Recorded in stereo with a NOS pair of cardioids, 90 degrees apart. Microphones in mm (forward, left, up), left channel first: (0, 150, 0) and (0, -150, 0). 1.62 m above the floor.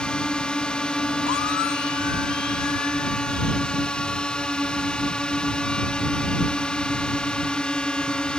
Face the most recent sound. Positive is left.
turn(degrees=5)